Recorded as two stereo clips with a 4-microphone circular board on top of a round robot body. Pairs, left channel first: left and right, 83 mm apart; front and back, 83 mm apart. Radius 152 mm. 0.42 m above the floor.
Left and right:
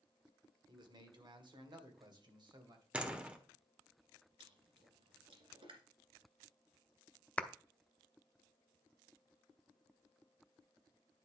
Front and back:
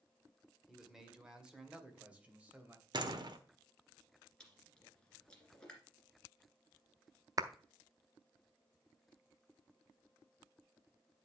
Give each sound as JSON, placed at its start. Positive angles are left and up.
{"t": 0.7, "sound": "a man speaking", "azimuth_deg": -90, "distance_m": 2.0}
{"t": 2.9, "sound": "a door slam", "azimuth_deg": -165, "distance_m": 1.4}
{"t": 4.4, "sound": "chewing", "azimuth_deg": -80, "distance_m": 1.9}
{"t": 7.4, "sound": "a clap", "azimuth_deg": 160, "distance_m": 0.9}